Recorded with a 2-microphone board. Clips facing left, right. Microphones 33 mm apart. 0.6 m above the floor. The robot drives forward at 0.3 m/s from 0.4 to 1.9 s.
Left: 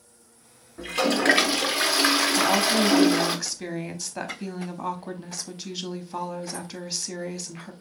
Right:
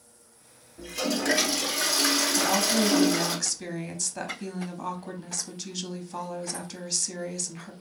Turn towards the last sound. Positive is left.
turn(degrees=15)  # may be behind; listen again after turning